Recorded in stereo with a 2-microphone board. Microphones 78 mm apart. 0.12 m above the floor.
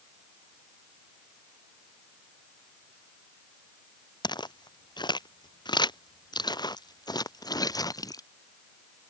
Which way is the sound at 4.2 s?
80° left.